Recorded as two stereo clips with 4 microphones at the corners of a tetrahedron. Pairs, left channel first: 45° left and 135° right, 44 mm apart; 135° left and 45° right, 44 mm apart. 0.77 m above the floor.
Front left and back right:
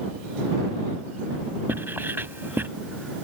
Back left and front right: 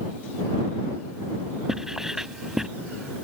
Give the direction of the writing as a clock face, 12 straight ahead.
4 o'clock.